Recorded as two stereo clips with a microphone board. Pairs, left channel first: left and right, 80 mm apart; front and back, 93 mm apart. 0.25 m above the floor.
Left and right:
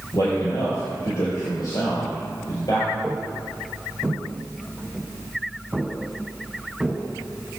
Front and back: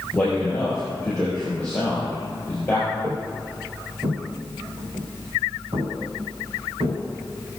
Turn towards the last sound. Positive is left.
turn(degrees=180)